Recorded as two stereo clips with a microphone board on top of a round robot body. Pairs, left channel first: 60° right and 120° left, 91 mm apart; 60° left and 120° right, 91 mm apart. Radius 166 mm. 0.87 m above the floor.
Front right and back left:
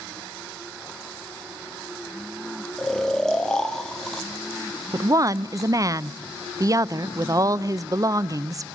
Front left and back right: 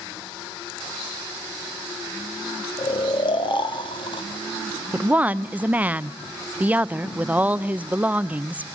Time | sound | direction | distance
2.8 | snoring | 25° left | 0.7 m
4.9 | a woman speaking | 170° left | 0.6 m